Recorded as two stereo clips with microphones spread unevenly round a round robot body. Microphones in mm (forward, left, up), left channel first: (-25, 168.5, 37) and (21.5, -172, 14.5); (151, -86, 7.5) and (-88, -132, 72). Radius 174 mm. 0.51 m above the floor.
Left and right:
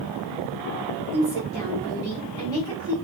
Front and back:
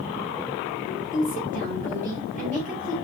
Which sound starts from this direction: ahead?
A woman speaking, at 1.1 s.